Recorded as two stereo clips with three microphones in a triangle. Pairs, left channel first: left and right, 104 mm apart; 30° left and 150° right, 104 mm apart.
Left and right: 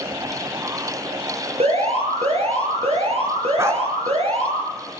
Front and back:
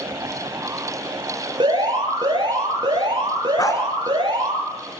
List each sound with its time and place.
1.6 s an alarm: 105° right, 6 m
3.6 s a dog barking: 25° right, 1.8 m